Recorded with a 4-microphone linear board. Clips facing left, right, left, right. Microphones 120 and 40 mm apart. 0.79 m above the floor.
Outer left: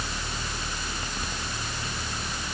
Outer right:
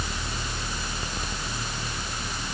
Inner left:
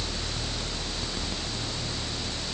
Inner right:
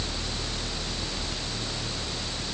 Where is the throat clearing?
I don't hear throat clearing.